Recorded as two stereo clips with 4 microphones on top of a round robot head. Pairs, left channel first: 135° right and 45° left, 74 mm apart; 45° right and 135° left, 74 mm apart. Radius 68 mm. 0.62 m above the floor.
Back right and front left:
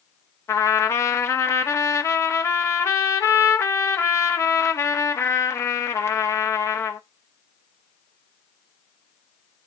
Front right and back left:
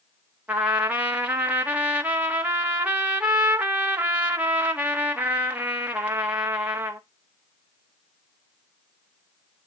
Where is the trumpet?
165° right, 1.6 m.